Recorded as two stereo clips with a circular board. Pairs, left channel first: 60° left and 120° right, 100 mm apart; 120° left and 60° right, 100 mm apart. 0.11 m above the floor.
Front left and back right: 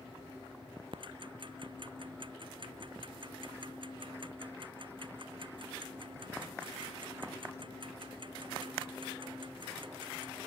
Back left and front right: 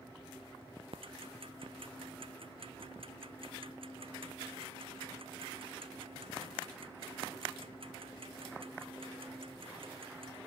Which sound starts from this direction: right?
Ticking, at 0.9 s.